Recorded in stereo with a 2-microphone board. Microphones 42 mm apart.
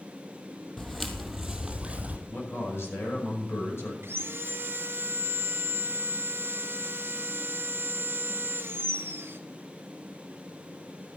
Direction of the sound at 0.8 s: 10° left (ahead or behind).